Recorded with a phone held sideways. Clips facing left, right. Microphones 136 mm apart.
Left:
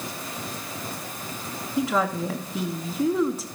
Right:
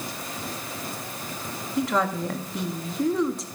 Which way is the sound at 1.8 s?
5° left (ahead or behind).